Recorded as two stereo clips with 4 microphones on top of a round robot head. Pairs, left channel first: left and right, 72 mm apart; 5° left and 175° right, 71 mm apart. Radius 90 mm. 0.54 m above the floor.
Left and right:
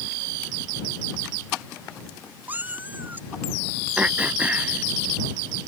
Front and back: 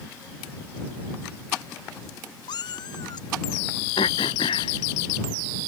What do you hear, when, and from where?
2.5 s a cat meowing: 25° right
4.0 s throat clearing: 20° right